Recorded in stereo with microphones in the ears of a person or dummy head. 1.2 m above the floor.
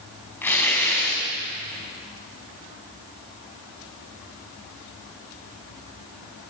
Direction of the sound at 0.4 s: 5° left (ahead or behind).